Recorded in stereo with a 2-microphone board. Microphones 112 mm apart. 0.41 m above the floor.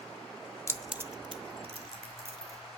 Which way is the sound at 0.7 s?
25° left (ahead or behind).